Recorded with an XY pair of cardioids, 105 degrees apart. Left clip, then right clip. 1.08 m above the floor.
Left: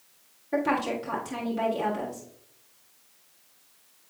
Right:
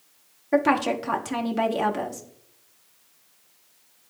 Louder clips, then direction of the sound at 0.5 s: Right 5 dB; 55° right.